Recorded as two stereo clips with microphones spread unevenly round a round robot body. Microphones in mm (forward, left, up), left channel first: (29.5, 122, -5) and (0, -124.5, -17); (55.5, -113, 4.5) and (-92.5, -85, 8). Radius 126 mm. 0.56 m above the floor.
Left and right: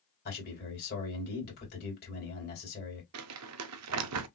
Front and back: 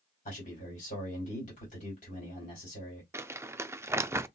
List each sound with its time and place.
0.2 s a man speaking: 35° left, 2.5 m
3.1 s crumpling: 115° right, 0.5 m